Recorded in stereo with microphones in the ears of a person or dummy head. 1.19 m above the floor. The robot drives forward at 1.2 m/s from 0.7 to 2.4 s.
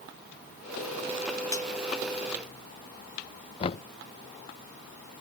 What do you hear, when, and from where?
1.5 s cutlery clinking: 20° left (ahead or behind); by 1.7 s 15° left (ahead or behind)
3.6 s knocking: 30° left (ahead or behind)